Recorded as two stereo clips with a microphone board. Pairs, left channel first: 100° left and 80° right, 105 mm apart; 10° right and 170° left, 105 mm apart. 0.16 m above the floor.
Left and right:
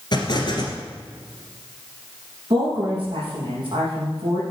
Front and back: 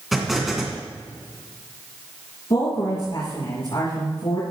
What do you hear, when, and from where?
0.1 s an explosion: 85° left, 2 m
2.5 s a woman speaking: 40° right, 4.5 m